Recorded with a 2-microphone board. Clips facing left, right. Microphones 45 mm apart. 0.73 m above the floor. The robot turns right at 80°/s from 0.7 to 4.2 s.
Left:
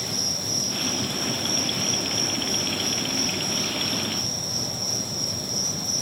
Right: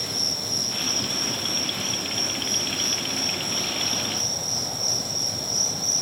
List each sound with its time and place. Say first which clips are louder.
0.0 s an insect: even; 5° right, 1.8 m; by 6.0 s 85° right, 1.8 m